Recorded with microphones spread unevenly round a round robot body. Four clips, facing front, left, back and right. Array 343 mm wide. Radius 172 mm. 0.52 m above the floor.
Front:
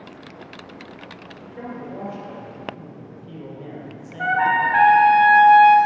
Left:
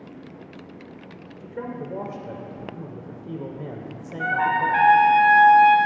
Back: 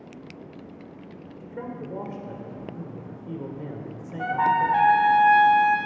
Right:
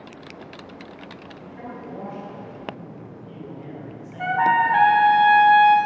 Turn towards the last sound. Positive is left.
turn(degrees=-160)